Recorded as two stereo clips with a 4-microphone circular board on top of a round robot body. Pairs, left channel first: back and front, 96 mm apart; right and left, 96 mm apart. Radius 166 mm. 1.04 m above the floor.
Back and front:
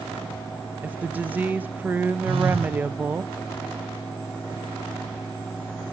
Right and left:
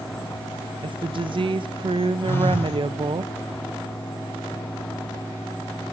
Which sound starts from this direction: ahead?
A phone buzzing, at 2.2 s.